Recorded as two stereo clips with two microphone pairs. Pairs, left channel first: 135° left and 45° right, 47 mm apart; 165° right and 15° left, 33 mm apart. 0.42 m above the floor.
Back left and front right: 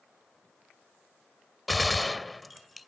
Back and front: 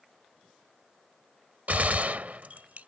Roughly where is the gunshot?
Ahead left.